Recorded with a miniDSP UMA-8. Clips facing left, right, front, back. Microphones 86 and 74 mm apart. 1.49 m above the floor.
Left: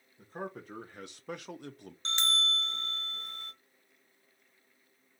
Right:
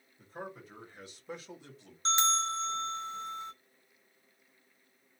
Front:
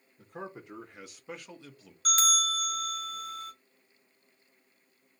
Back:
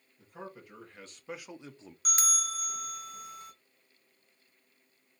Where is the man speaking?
45° left, 1.1 m; by 1.9 s 130° left, 0.8 m.